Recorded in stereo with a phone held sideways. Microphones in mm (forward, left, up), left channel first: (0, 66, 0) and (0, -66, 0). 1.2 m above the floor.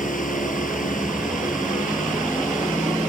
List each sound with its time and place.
0.0 s a fan: 85° left